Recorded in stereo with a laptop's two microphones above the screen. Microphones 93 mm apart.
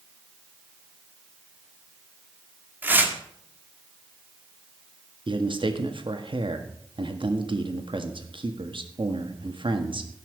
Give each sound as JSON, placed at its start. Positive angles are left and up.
{"t": 2.8, "sound": "tearing paper", "side_deg": -20, "distance_m": 2.5}
{"t": 5.3, "sound": "a man speaking", "side_deg": -65, "distance_m": 1.7}